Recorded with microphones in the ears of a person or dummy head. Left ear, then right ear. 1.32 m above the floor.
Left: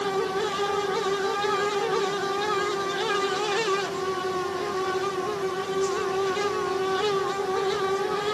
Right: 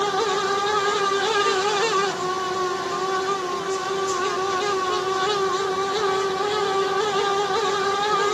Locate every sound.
Only background noise.